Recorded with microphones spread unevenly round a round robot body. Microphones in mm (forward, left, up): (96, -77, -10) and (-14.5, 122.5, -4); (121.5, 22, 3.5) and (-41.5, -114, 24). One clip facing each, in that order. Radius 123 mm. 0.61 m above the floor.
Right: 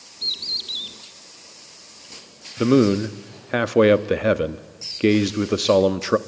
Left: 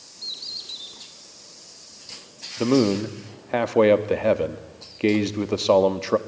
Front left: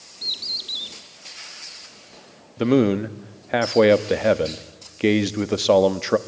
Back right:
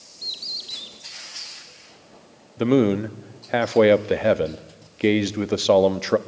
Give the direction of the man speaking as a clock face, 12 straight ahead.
1 o'clock.